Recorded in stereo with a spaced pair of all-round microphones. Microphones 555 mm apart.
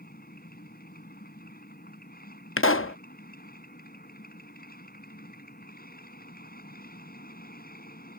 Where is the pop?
25° left (ahead or behind).